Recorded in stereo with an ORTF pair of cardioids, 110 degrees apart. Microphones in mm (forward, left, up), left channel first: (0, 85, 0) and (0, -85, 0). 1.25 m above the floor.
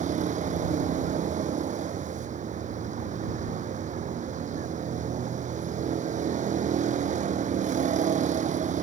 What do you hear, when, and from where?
0.0 s a vehicle: 45° right